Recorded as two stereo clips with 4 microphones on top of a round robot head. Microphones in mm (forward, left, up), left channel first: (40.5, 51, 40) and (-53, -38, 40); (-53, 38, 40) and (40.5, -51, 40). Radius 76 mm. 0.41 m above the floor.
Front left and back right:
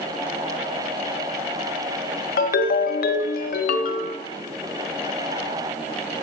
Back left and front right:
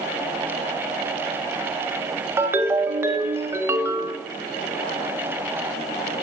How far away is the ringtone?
About 0.7 m.